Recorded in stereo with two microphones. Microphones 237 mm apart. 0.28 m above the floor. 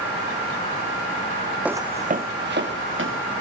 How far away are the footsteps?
About 0.7 m.